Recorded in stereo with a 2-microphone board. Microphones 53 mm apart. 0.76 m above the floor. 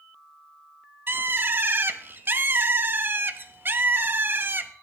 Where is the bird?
40° right (ahead or behind), 0.8 m.